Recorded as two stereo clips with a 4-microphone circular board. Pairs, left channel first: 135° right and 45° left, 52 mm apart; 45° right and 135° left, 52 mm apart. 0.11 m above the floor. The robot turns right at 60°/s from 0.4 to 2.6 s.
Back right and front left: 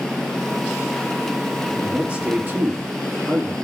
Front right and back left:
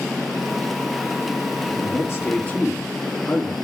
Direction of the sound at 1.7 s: 35° right.